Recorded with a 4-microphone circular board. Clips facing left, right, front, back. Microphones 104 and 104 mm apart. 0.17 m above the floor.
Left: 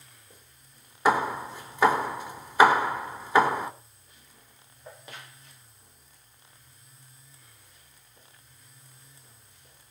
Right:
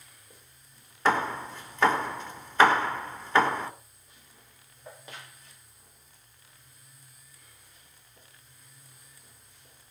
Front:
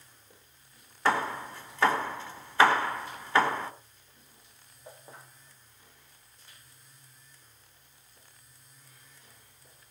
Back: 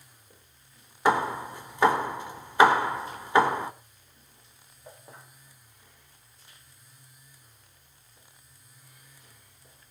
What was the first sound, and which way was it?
Hammering, 145° left.